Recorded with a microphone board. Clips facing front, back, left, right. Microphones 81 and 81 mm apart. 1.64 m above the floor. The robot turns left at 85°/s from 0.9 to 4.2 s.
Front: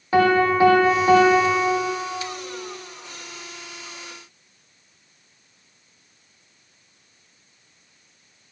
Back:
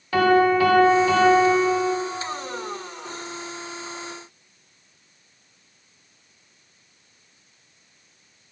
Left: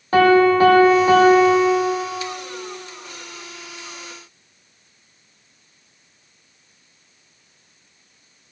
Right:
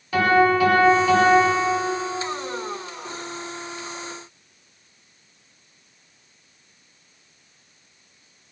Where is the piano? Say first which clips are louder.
Even, left 5 dB; 60° left, 1.0 m; by 1.9 s 25° right, 1.0 m.